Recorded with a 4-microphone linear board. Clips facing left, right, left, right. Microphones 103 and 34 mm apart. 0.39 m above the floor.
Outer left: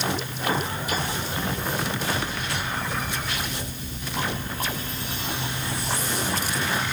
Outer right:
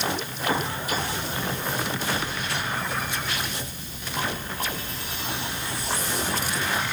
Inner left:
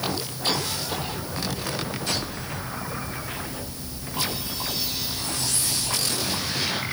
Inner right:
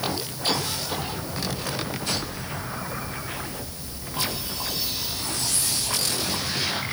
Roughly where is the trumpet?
I don't hear a trumpet.